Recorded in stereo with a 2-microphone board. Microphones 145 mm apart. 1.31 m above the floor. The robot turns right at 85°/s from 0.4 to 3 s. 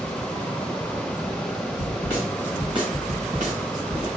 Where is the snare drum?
135° left, 1.8 m; by 4.1 s 120° right, 1.8 m.